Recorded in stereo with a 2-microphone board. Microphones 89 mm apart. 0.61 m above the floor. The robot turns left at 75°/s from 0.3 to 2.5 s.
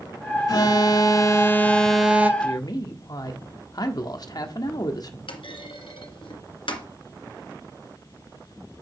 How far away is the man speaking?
About 1.2 m.